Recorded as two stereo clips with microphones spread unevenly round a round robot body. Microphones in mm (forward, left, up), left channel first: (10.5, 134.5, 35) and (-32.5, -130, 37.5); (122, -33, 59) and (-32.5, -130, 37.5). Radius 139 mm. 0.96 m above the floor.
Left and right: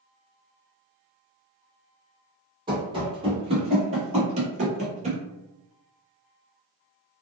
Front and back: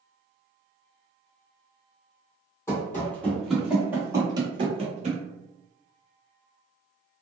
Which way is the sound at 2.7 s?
30° right.